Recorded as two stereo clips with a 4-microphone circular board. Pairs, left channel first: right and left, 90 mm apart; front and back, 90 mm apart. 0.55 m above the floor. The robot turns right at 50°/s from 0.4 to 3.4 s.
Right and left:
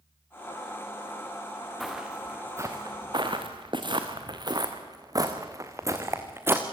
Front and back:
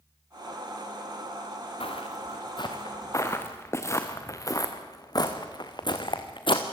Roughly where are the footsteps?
Ahead.